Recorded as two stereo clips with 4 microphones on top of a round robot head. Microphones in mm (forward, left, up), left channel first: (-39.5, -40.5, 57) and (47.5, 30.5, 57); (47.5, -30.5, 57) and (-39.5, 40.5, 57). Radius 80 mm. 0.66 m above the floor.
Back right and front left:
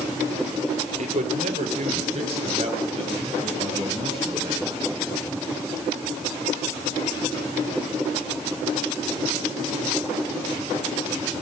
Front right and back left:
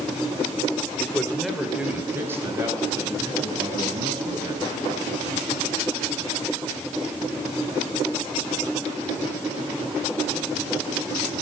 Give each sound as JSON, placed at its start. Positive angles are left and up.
{"t": 1.0, "sound": "a man speaking", "azimuth_deg": 35, "distance_m": 1.9}